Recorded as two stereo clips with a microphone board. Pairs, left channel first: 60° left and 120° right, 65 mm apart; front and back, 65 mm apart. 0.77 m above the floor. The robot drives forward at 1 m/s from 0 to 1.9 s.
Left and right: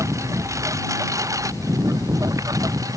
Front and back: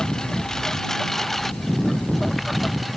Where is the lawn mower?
80° right; by 3.0 s 90° right.